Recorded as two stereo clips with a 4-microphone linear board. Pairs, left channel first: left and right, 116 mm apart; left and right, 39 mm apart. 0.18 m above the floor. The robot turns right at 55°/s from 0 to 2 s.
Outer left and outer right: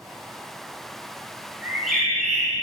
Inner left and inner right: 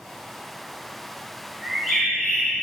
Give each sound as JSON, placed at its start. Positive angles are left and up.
{"t": 1.6, "sound": "a bird", "side_deg": -15, "distance_m": 2.5}